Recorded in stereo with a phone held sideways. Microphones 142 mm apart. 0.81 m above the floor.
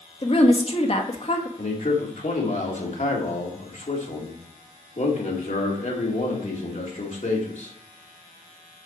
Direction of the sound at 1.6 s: 60° left (ahead or behind).